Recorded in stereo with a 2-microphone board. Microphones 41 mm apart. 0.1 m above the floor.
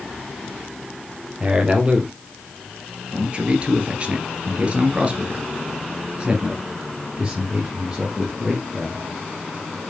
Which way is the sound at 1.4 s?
20° right (ahead or behind).